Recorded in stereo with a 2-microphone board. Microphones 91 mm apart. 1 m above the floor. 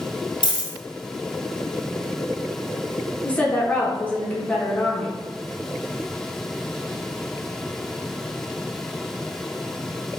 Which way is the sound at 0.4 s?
45° left (ahead or behind).